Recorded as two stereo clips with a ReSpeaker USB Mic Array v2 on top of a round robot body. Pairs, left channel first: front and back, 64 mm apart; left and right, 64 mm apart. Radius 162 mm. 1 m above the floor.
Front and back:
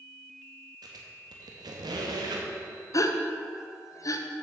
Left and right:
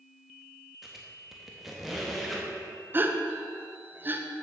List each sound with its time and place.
0.8 s a squeak: 175° right, 1.0 m
2.9 s a gasp: 30° right, 0.8 m